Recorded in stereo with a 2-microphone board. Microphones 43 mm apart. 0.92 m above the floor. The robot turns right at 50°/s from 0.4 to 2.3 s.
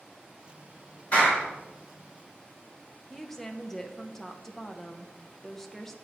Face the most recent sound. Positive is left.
turn(degrees=10)  # may be behind; listen again after turning